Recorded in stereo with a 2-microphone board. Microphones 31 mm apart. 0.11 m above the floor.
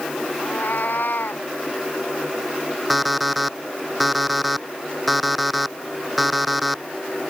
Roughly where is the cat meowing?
Left.